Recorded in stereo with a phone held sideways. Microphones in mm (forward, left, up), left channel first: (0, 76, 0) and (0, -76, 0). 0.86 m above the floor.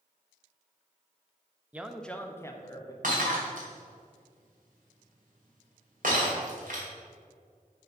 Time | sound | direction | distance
1.7 | a man speaking | 10° right (ahead or behind) | 0.5 m
3.0 | breaking glass | 65° right (ahead or behind) | 2.5 m